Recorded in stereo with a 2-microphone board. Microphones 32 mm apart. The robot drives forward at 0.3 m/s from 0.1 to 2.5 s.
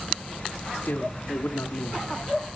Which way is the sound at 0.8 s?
70° left (ahead or behind).